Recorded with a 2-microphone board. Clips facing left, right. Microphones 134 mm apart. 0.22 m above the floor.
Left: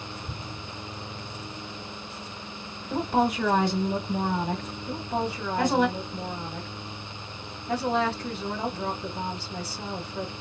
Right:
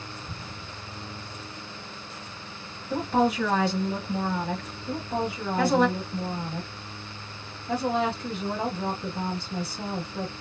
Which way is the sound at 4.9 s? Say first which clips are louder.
Right 1 dB; 10° right (ahead or behind).